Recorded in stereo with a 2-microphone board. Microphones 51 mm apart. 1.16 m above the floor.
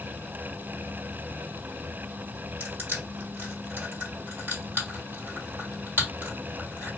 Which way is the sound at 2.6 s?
45° right (ahead or behind).